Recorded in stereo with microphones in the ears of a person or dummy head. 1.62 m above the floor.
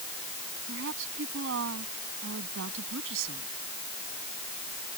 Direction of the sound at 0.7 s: 75° right (ahead or behind).